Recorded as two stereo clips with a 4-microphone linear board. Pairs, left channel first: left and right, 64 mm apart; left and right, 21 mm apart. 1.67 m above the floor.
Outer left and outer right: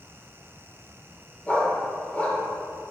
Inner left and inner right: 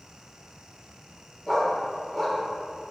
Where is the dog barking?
20° left (ahead or behind), 1.4 m.